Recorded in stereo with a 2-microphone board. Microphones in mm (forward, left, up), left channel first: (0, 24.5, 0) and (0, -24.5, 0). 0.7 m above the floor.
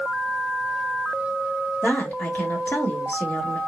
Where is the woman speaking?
45° left (ahead or behind), 1.2 m.